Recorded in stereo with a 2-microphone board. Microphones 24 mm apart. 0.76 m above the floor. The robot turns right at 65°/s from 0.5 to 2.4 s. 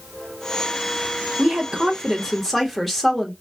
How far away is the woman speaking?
About 1.1 m.